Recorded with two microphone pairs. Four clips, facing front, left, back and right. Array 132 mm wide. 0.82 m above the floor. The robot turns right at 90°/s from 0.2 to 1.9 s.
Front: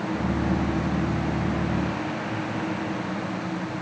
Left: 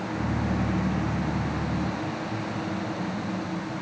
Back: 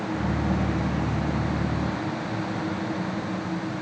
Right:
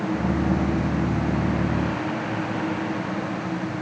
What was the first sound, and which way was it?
Only background noise.